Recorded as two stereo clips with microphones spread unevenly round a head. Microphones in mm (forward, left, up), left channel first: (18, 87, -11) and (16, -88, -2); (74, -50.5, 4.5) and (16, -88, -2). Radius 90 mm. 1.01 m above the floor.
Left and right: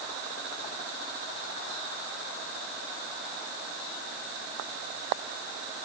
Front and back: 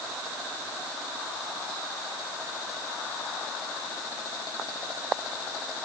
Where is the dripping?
No dripping in this recording.